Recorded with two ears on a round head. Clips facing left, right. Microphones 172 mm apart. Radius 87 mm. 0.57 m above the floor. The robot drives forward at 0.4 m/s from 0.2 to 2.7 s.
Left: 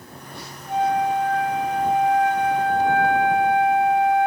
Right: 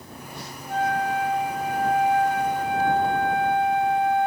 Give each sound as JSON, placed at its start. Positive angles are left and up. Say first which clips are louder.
{"t": 0.7, "sound": "a flute", "louder": "left 4 dB", "side_deg": 5, "distance_m": 1.4}